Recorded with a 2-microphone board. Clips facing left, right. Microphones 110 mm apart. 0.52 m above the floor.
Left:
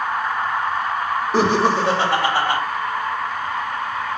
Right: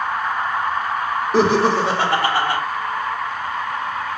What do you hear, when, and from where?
1.3 s laughter: centre (ahead or behind), 1.0 m